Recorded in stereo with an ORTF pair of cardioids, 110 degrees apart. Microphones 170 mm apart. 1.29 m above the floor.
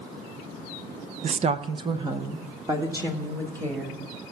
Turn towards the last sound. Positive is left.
turn(degrees=-15)